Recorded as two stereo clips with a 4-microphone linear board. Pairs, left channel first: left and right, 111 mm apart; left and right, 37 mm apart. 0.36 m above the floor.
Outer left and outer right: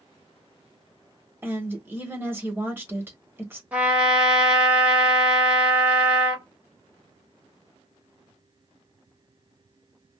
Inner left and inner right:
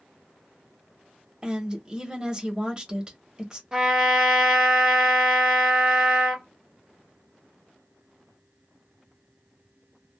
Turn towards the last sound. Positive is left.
turn(degrees=-15)  # may be behind; listen again after turning